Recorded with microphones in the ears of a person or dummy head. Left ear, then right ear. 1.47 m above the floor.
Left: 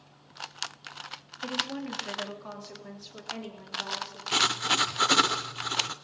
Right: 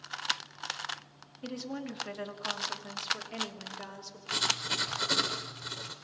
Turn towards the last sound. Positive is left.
turn(degrees=25)  # may be behind; listen again after turning